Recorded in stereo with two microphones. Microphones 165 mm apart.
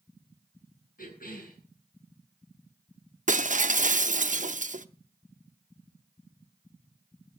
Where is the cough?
60° left (ahead or behind), 7 m.